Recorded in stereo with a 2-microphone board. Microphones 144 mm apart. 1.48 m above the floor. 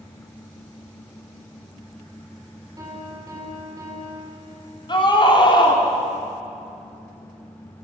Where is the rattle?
I don't hear a rattle.